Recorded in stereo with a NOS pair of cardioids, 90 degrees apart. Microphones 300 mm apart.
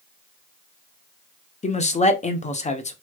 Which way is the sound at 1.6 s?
25° left.